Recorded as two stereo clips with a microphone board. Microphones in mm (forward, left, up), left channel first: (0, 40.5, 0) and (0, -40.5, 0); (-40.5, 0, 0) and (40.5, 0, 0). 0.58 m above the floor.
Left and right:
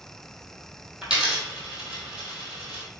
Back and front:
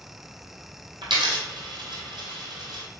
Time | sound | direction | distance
1.0 | a dropped coin | 10° right | 1.7 m